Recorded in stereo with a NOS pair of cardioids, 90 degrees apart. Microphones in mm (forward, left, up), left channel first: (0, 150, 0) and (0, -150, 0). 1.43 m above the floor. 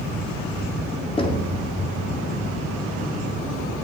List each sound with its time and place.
1.2 s knocking: 20° left, 2.5 m